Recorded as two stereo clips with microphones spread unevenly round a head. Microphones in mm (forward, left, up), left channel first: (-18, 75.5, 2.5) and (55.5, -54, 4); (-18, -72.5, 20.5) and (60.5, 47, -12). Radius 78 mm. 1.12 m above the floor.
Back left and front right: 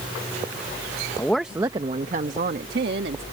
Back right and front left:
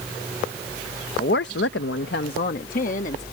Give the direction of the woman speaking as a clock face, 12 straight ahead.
6 o'clock.